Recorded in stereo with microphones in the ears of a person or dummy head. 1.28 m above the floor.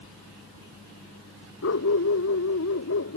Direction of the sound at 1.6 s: 70° left (ahead or behind).